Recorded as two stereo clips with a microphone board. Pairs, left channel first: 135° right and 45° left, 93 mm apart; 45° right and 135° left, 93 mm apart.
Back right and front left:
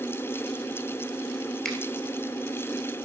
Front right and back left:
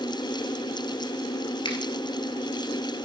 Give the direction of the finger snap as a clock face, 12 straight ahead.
2 o'clock.